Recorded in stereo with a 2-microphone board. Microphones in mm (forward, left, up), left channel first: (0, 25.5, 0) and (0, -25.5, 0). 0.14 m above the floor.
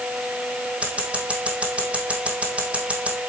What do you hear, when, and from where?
0.8 s scissors: 25° right (ahead or behind), 1.9 m